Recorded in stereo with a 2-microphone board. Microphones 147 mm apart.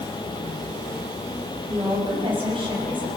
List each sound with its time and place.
1.7 s a woman speaking: 35° right (ahead or behind), 7.5 m